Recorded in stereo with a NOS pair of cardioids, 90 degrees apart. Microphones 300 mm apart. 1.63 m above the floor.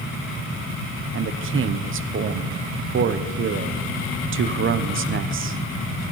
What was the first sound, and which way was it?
A man speaking, 45° right.